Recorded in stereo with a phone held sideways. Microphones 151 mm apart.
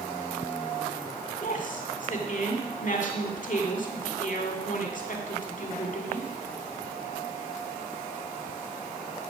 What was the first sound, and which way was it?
A woman speaking, 55° left (ahead or behind).